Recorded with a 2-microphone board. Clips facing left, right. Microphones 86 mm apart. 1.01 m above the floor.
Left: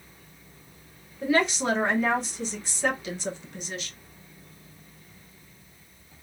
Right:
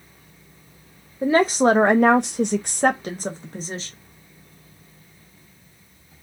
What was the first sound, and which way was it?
A woman speaking, 35° right (ahead or behind).